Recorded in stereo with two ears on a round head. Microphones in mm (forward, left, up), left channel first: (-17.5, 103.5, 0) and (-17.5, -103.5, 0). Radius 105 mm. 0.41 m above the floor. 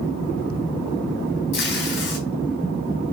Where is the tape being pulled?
55° left (ahead or behind), 4 m.